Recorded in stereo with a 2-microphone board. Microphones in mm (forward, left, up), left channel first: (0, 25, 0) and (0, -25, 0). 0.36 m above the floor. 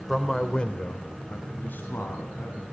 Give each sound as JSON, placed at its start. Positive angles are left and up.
{"t": 0.1, "sound": "a man speaking", "side_deg": 0, "distance_m": 1.2}